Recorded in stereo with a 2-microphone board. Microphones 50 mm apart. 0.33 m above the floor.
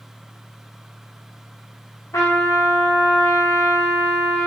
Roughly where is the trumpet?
Left.